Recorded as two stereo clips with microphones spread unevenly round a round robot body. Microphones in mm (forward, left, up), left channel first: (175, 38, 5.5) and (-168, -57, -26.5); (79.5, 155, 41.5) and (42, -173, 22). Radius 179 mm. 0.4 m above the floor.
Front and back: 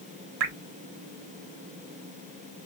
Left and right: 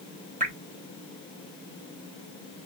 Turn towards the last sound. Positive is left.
turn(degrees=-160)